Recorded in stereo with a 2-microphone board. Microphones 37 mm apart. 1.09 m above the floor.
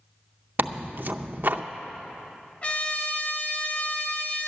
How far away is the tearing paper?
About 0.5 m.